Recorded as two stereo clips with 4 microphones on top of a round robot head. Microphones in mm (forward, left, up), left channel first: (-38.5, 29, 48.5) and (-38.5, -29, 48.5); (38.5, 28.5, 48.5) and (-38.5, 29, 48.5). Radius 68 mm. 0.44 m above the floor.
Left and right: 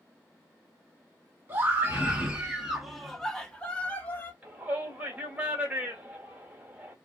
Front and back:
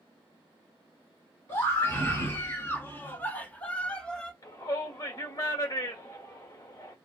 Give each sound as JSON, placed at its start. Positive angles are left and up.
{"t": 1.5, "sound": "a scream", "azimuth_deg": -45, "distance_m": 1.4}
{"t": 4.4, "sound": "a shout", "azimuth_deg": -30, "distance_m": 1.2}